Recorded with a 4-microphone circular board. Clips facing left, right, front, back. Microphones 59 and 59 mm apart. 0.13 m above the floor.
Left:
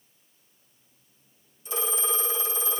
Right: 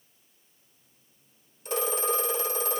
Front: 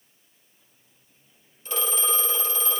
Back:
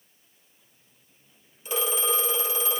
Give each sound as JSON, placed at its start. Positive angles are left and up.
{"t": 1.6, "sound": "a phone ringing", "azimuth_deg": -105, "distance_m": 2.0}